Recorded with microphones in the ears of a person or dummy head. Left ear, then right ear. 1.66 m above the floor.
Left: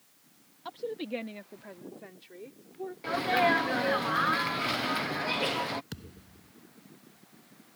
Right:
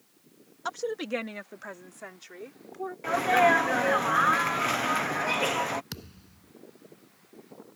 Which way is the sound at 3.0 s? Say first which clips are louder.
Right 4 dB; 20° right (ahead or behind).